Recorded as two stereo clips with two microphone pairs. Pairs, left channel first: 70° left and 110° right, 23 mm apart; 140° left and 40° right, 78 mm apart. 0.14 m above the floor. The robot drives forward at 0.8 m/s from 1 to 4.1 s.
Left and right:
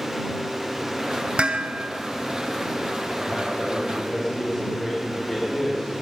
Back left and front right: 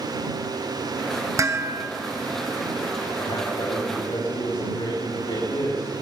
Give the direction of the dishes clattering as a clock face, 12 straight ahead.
3 o'clock.